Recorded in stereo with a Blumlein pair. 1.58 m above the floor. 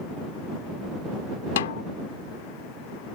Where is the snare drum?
60° left.